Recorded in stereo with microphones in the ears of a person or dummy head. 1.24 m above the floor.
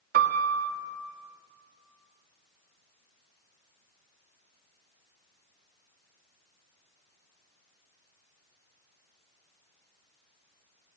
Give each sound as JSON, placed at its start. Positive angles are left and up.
{"t": 0.1, "sound": "a piano", "side_deg": -55, "distance_m": 1.6}